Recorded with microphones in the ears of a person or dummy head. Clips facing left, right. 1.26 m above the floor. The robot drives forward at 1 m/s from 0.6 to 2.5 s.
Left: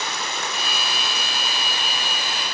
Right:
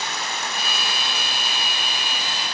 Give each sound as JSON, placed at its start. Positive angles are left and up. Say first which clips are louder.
{"t": 0.0, "sound": "running water", "louder": "left 1 dB", "side_deg": 75, "distance_m": 3.5}